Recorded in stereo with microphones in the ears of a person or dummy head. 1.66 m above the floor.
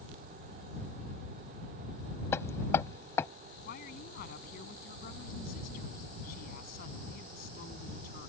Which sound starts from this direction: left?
A woman speaking, at 3.6 s.